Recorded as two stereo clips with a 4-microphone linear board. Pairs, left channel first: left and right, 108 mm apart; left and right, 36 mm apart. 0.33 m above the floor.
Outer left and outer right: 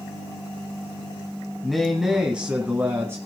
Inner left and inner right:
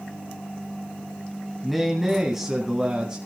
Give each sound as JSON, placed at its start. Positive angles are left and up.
{"t": 1.6, "sound": "a man speaking", "side_deg": 5, "distance_m": 2.5}